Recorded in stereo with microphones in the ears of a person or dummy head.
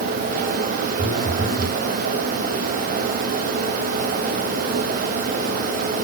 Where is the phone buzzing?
15° right (ahead or behind), 4.5 m.